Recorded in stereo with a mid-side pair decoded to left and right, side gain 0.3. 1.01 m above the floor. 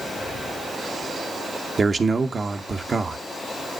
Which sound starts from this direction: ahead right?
A man speaking, at 1.8 s.